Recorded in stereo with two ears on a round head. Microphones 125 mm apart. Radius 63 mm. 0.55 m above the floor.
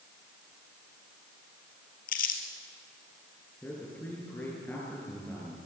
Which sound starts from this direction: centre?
A man speaking, at 3.6 s.